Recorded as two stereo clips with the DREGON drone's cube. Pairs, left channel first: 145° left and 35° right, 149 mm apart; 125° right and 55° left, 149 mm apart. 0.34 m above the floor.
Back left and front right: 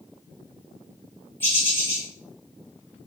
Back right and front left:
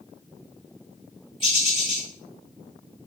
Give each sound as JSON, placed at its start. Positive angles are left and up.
{"t": 1.4, "sound": "a bird", "azimuth_deg": -145, "distance_m": 1.3}